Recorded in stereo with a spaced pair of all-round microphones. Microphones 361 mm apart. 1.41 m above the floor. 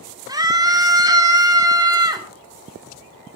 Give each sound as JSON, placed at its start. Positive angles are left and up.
{"t": 0.3, "sound": "a scream", "side_deg": -10, "distance_m": 4.0}